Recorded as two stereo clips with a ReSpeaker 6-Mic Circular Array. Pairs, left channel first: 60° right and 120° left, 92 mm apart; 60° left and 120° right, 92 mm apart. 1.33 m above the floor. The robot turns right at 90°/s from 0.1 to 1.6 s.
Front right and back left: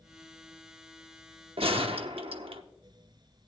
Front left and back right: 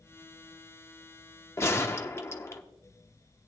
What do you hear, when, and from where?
1.6 s a gunshot: 120° left, 0.9 m